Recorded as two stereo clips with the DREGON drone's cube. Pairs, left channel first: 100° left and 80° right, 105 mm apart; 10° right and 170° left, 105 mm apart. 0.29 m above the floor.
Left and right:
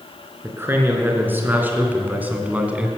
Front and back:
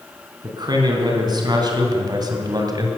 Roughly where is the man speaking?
Behind right.